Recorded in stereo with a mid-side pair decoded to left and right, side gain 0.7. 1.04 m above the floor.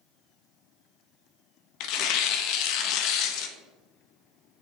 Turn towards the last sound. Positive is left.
turn(degrees=60)